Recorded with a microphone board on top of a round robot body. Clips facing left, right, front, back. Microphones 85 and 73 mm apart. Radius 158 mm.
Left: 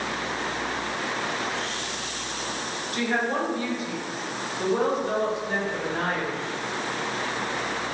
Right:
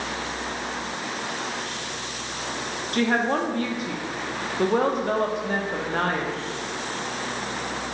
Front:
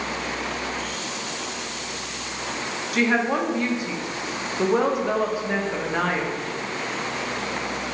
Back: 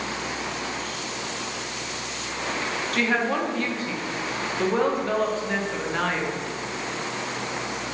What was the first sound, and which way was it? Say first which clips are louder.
A woman speaking: right 4 dB, front 3 dB; 80° right.